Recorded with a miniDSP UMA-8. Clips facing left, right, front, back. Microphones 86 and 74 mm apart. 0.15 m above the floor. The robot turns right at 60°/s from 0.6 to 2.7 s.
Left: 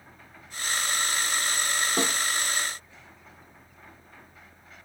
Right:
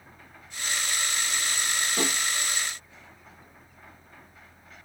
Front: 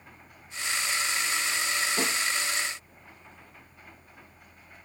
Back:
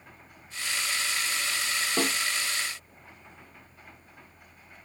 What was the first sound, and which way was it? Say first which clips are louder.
A snare drum: left 1 dB, back 5 dB; 150° left.